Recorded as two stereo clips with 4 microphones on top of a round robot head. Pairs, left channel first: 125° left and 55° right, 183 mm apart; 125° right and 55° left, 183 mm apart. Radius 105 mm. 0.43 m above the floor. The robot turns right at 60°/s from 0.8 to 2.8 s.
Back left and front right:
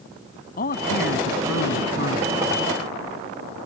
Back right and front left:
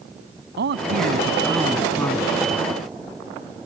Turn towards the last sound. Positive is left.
turn(degrees=-155)